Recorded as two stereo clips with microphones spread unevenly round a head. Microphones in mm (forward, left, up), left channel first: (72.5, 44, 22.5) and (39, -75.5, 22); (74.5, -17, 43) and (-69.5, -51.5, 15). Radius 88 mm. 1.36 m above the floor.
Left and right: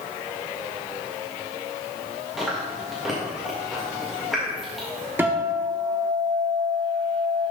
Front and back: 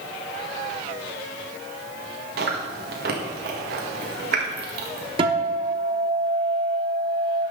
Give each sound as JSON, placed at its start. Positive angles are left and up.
{"t": 2.4, "sound": "chewing", "azimuth_deg": 165, "distance_m": 1.6}
{"t": 5.2, "sound": "a guitar", "azimuth_deg": -155, "distance_m": 0.9}